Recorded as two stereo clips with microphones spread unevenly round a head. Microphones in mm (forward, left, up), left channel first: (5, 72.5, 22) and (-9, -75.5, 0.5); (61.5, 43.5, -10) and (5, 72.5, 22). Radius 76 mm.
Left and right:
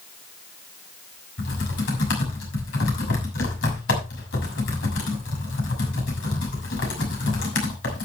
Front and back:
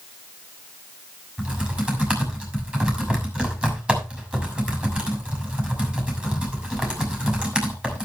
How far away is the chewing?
I don't hear chewing.